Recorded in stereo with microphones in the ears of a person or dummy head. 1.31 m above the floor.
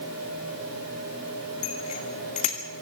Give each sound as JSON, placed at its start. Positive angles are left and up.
{"t": 1.6, "sound": "a bicycle bell", "side_deg": 40, "distance_m": 2.5}